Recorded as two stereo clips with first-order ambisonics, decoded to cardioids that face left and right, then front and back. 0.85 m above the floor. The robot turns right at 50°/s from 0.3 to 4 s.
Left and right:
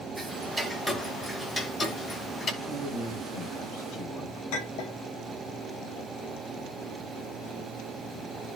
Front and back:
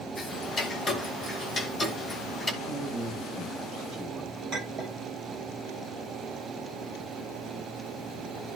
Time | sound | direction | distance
0.2 | ticking | 35° right | 0.9 m
2.6 | a man speaking | 65° left | 4.5 m
4.5 | a clink | 120° left | 4.5 m